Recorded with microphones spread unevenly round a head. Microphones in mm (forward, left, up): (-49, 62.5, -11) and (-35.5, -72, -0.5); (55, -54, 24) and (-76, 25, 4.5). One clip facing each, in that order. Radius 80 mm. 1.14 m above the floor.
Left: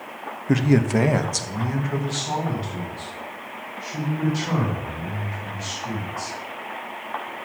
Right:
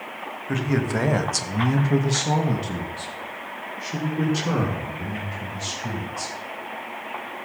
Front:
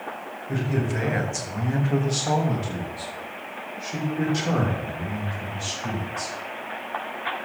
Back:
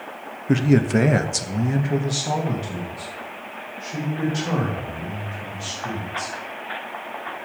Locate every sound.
0.5 s a man speaking: 145° left, 1.0 m; by 6.3 s 100° right, 4.5 m